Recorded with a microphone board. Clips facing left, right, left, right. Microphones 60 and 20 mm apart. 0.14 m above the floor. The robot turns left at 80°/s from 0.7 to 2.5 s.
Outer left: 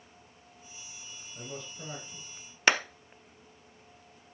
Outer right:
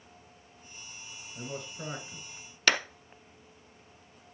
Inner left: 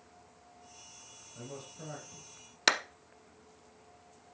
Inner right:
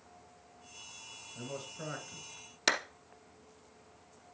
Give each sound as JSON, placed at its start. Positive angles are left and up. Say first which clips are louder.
{"t": 1.4, "sound": "a man speaking", "louder": "outer right 3 dB, inner right 3 dB", "azimuth_deg": -25, "distance_m": 2.0}
{"t": 2.7, "sound": "a clap", "louder": "outer left 2 dB, inner left 3 dB", "side_deg": 20, "distance_m": 0.9}